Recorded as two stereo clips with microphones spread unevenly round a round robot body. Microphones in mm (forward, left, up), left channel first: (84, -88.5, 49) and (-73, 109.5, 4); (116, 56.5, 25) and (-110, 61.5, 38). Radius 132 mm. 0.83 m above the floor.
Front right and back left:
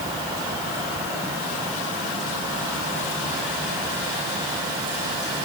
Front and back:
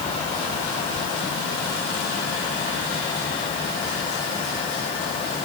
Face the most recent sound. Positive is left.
No sound to turn to.